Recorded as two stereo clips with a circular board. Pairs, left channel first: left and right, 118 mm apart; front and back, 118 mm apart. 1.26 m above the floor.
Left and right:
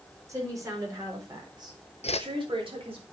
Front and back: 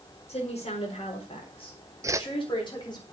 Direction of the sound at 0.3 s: 25° right.